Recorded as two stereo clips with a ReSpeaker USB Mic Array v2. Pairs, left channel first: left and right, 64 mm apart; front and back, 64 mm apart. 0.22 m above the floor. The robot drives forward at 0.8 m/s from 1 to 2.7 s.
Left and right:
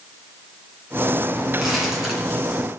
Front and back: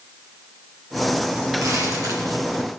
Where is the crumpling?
175° right, 2.5 m.